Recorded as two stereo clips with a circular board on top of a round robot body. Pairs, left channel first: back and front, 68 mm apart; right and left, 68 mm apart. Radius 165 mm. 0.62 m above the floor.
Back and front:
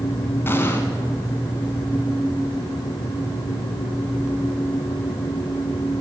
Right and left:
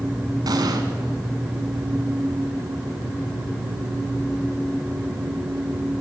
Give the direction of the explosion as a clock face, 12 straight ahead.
8 o'clock.